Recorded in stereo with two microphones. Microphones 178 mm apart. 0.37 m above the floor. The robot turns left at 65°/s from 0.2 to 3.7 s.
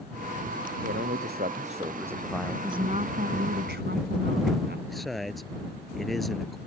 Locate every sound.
0.8 s a man speaking: 85° right; by 2.5 s 165° left
2.6 s a woman speaking: 25° right; by 4.8 s 95° right
4.9 s a man speaking: centre (ahead or behind)